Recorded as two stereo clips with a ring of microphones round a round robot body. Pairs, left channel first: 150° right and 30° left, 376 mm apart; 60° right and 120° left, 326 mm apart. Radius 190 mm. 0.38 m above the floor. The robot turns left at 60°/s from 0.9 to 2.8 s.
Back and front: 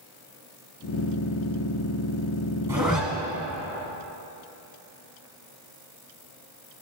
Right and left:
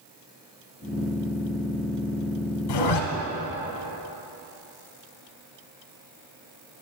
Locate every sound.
2.7 s a zipper: 55° right, 0.9 m; by 3.0 s 60° right, 0.9 m